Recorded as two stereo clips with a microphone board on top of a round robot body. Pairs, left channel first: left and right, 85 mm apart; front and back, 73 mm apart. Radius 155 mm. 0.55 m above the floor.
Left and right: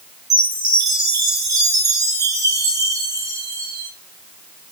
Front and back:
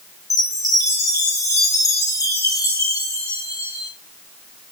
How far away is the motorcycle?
I don't hear a motorcycle.